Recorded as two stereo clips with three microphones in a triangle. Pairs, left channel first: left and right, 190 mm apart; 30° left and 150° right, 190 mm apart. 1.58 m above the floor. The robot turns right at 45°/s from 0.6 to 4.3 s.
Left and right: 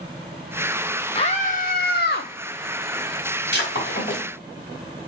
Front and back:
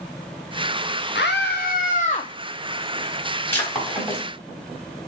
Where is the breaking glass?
105° left, 4 m; by 4.2 s 140° left, 4 m.